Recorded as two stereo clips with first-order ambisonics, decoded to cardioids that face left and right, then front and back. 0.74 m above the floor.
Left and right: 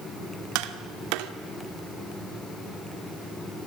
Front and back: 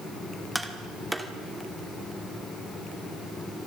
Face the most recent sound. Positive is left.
turn(degrees=-95)